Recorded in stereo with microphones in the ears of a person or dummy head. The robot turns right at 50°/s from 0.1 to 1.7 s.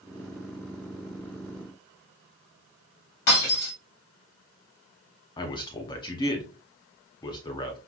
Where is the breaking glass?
55° left (ahead or behind), 3 m.